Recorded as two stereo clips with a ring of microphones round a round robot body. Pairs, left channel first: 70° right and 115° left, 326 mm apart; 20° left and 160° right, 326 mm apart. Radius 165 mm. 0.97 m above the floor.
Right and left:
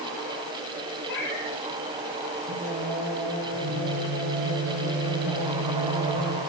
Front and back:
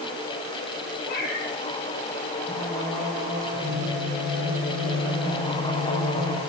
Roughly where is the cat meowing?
Ahead.